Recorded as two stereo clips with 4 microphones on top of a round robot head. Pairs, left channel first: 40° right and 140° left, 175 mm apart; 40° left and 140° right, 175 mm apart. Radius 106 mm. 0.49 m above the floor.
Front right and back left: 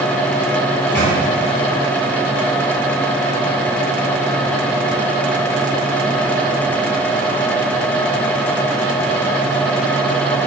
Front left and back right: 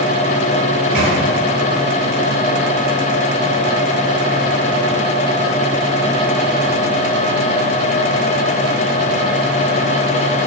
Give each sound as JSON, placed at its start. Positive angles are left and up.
{"t": 0.7, "sound": "a microwave", "azimuth_deg": -115, "distance_m": 1.6}